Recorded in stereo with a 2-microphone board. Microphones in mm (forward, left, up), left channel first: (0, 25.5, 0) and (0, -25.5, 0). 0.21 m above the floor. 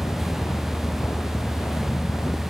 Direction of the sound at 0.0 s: 65° left (ahead or behind).